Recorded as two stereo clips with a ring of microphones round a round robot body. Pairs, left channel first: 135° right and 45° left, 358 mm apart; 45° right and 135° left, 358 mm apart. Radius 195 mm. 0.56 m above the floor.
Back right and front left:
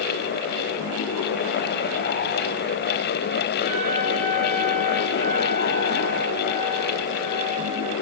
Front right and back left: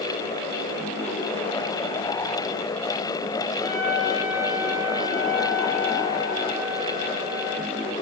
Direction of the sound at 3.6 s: 80° right.